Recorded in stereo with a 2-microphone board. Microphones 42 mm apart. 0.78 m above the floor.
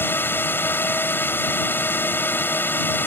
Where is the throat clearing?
No throat clearing in this recording.